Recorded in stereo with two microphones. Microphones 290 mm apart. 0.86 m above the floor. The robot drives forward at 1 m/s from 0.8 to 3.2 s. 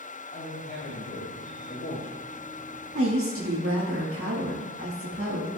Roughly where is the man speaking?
Left.